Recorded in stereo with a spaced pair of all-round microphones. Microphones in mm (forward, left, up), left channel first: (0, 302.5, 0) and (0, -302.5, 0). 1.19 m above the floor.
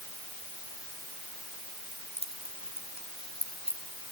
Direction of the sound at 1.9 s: 10° right (ahead or behind).